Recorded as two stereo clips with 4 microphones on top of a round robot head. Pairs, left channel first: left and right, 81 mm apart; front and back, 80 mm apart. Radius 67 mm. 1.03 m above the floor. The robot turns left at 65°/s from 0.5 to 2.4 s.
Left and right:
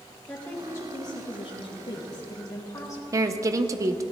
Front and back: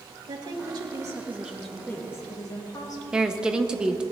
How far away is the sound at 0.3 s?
About 1.7 m.